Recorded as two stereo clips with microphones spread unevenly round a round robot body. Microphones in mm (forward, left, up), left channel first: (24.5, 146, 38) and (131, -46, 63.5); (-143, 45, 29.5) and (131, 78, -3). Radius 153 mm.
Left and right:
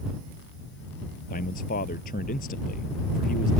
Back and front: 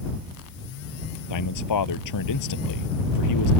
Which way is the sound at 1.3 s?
Straight behind.